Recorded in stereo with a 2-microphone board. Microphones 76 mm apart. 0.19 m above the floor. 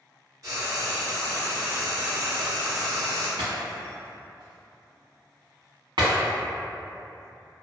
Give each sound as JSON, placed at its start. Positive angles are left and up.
{"t": 0.4, "sound": "frying", "side_deg": -50, "distance_m": 1.4}
{"t": 3.4, "sound": "breaking glass", "side_deg": -85, "distance_m": 1.6}